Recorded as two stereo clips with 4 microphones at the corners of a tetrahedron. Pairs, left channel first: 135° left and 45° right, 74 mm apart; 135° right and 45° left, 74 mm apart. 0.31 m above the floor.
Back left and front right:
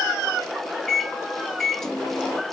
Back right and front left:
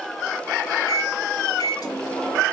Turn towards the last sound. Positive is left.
turn(degrees=-140)